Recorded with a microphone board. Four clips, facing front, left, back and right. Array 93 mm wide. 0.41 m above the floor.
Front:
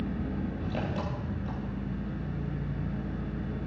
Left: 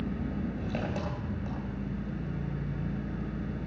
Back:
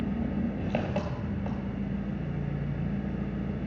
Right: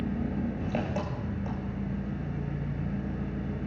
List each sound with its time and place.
0.0 s an engine running: 150° right, 3 m